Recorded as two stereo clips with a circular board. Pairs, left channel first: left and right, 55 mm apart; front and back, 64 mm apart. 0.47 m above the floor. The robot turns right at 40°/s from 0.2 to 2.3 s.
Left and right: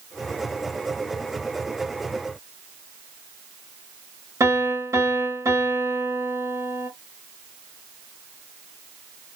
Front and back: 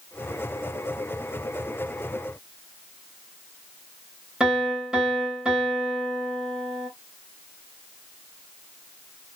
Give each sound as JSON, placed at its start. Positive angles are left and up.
{"t": 4.4, "sound": "a piano", "azimuth_deg": -100, "distance_m": 2.5}